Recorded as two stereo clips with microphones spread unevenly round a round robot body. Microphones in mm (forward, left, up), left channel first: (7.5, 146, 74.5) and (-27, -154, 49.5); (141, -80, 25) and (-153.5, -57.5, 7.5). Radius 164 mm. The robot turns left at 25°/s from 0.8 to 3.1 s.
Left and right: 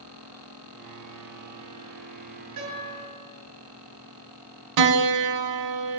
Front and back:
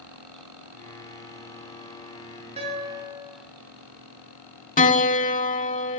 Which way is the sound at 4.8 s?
65° right.